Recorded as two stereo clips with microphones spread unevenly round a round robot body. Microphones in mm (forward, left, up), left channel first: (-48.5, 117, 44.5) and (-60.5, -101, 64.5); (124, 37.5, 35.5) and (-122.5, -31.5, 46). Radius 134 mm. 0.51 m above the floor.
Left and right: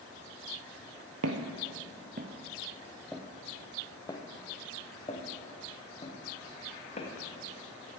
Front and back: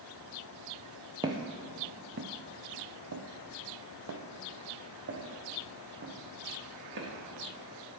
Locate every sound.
1.2 s footsteps: 90° right, 0.9 m; by 7.1 s 145° left, 3 m